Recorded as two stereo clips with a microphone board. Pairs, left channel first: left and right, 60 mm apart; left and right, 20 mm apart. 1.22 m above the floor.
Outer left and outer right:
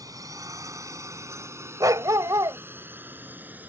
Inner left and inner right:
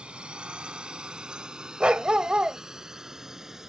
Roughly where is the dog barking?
Right.